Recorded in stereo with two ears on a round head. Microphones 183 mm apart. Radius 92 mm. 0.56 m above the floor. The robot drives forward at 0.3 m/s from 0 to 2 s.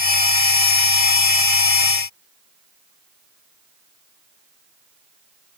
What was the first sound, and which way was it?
Only background noise.